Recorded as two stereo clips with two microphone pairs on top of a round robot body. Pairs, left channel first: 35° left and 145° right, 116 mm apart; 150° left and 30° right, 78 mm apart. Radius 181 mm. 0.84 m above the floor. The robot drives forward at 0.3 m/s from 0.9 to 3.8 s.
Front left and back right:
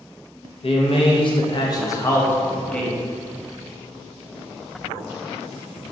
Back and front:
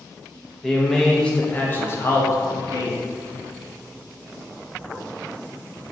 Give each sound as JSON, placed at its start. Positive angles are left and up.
{"t": 0.6, "sound": "a man speaking", "azimuth_deg": 60, "distance_m": 0.8}